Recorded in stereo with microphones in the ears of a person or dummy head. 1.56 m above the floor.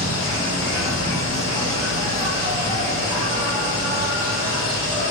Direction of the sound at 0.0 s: 25° right (ahead or behind).